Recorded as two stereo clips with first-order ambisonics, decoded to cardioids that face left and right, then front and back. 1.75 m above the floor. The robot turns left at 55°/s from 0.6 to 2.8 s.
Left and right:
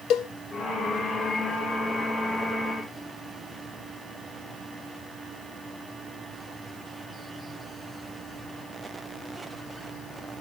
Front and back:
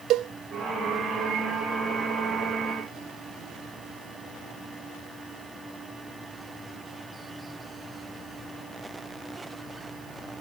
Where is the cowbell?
135° left, 0.6 m.